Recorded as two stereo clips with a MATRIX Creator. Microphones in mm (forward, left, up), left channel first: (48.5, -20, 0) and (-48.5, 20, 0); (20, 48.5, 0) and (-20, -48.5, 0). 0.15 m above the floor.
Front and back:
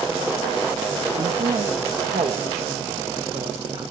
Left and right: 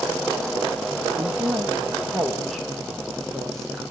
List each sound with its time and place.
1.2 s a woman speaking: 170° left, 6 m; by 3.9 s 155° left, 9 m